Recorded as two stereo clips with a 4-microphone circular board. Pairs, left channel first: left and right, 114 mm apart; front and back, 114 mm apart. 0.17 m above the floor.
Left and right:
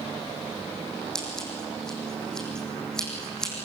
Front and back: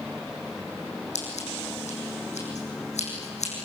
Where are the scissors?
5° left, 6 m.